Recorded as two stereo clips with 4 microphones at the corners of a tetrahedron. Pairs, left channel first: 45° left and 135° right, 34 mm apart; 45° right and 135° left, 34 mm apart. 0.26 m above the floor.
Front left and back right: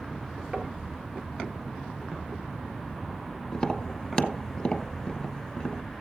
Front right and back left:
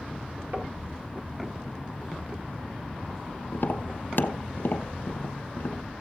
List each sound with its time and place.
0.5 s knocking: 145° left, 3 m
3.5 s tapping: 20° right, 0.8 m